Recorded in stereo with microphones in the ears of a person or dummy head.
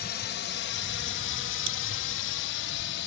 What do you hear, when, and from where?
0.0 s a drone: 50° left (ahead or behind); by 3.1 s 65° left (ahead or behind)
1.7 s a crack: 75° right (ahead or behind)